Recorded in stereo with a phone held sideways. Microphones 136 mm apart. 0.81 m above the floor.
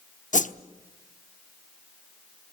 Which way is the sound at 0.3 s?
65° left (ahead or behind).